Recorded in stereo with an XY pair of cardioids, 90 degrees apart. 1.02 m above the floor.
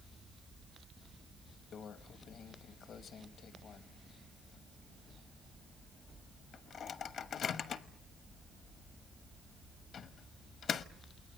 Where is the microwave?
70° left, 1.0 m.